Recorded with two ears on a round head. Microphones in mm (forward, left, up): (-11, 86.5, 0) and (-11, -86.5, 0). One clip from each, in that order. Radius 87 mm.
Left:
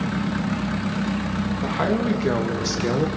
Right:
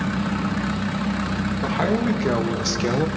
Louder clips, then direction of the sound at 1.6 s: Right 1 dB; 5° right (ahead or behind).